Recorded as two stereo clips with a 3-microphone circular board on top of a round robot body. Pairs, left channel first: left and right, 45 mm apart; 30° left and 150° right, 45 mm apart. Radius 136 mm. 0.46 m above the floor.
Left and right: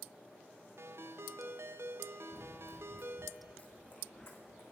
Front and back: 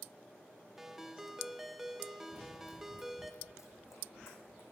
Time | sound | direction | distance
0.8 | a ringtone | 70° right | 0.9 m
2.3 | running footsteps | 55° right | 1.2 m